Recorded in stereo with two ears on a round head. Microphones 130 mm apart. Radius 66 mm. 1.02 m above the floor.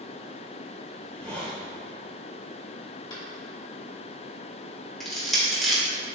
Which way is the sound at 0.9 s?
10° left (ahead or behind).